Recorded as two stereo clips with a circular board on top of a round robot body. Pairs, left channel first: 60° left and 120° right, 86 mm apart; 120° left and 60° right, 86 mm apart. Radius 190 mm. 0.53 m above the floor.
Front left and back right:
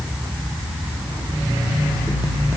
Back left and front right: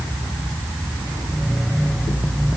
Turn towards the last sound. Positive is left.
No sound to turn to.